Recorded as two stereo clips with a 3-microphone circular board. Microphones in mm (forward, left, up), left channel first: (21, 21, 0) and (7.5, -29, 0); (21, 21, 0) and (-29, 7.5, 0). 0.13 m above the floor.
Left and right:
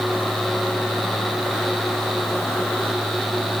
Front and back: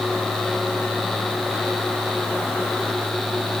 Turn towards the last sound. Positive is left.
No sound to turn to.